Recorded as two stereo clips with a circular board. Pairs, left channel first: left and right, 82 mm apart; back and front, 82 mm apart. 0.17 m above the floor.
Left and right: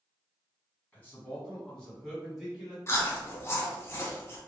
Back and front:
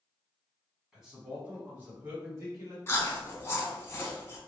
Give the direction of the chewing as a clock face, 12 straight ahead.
8 o'clock.